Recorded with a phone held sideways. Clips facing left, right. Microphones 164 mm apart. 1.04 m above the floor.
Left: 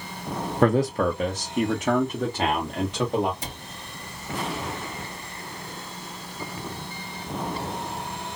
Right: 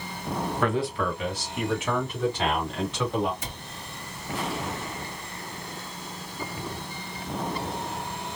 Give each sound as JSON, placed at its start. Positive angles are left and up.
{"t": 0.6, "sound": "a man speaking", "side_deg": 40, "distance_m": 0.6}
{"t": 3.4, "sound": "a cupboard door", "side_deg": 35, "distance_m": 1.8}